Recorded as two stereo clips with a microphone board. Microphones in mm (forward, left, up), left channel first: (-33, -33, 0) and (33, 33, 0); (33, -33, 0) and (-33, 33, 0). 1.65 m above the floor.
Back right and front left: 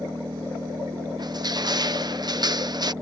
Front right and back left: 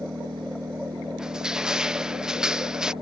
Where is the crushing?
55° left.